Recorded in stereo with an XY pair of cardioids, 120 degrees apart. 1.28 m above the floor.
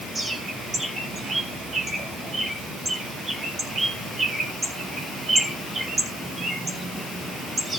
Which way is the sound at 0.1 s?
30° right.